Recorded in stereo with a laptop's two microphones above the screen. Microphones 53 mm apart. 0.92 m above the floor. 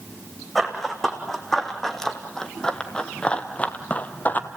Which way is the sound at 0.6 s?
Centre (ahead or behind).